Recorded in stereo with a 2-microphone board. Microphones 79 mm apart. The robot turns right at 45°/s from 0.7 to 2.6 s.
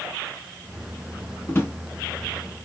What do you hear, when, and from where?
1.5 s a drawer: 35° left (ahead or behind), 0.9 m; by 1.8 s 25° left (ahead or behind), 0.9 m